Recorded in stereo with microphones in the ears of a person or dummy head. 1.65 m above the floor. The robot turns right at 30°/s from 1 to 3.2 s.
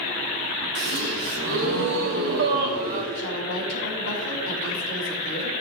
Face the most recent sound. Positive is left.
turn(degrees=70)  # may be behind; listen again after turning